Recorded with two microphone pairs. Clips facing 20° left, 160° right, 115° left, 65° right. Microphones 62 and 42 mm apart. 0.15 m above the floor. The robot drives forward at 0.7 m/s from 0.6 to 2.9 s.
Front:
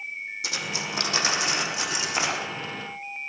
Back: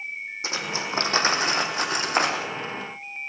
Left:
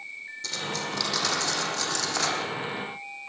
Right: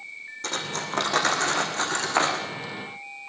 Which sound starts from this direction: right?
Cutlery clinking, at 0.4 s.